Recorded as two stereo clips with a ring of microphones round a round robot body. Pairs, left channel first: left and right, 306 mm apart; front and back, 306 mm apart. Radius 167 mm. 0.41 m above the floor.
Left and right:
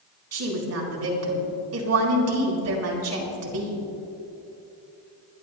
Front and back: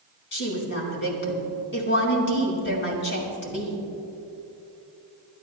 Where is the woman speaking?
50° right, 4.5 m.